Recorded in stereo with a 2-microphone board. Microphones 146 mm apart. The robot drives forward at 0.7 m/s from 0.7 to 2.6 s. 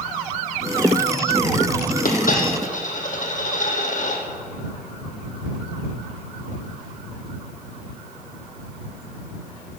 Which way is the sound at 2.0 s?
70° left (ahead or behind).